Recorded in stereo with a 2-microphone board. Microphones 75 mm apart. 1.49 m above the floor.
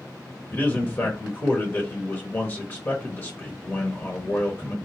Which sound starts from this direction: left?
A man speaking, at 0.5 s.